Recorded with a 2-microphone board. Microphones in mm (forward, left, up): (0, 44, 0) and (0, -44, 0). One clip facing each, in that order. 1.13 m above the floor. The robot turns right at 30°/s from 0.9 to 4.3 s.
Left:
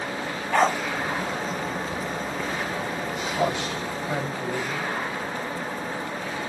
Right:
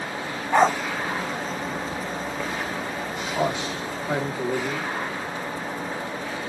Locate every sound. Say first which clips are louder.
0.5 s a dog barking: right 3 dB; 20° right (ahead or behind), 1.1 m
3.4 s a man speaking: right 1 dB; 15° right (ahead or behind), 3 m; by 4.9 s 45° right (ahead or behind), 3 m